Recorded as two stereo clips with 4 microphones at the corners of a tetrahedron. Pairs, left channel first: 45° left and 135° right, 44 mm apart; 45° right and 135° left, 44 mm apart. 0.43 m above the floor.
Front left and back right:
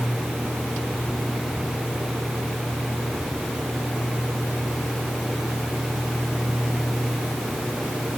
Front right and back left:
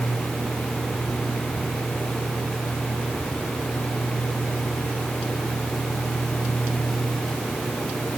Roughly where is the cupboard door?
No cupboard door in this recording.